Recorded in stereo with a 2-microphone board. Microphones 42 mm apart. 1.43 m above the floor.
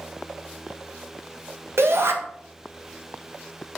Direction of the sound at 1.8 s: 80° right.